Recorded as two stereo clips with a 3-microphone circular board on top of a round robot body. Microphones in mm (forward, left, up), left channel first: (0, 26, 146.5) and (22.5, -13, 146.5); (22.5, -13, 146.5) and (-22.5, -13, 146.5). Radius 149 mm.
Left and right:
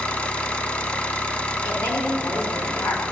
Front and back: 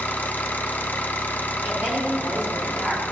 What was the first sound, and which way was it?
An engine running, 60° left.